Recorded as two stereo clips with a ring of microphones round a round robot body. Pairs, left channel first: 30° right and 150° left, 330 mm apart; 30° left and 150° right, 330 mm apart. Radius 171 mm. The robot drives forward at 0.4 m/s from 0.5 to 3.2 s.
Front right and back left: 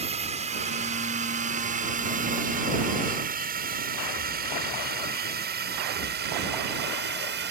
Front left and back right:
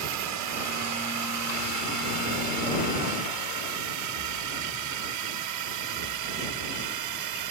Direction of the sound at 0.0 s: 145° right.